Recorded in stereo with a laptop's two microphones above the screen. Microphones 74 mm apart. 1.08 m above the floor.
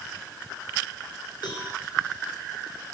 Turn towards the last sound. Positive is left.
turn(degrees=70)  # may be behind; listen again after turning